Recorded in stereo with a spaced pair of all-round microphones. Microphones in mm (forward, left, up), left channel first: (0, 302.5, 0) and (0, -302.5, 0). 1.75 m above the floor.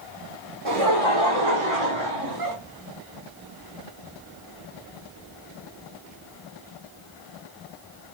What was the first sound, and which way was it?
Laughter, 55° right (ahead or behind).